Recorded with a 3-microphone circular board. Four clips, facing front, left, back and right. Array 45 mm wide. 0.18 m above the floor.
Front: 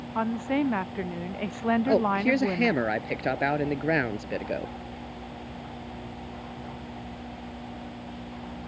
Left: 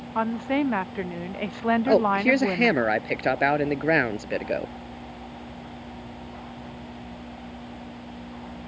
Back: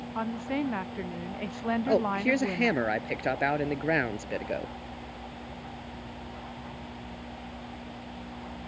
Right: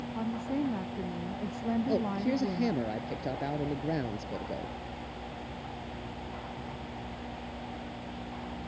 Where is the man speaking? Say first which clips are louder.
Left 13 dB, front 1 dB; 85° left.